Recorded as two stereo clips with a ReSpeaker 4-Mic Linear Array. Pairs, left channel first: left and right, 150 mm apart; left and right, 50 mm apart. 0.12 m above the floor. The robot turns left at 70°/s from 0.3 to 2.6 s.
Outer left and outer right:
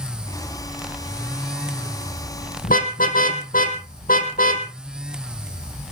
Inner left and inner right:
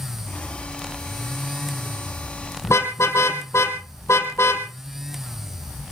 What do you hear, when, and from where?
2.6 s a car horn: 65° left (ahead or behind), 3 m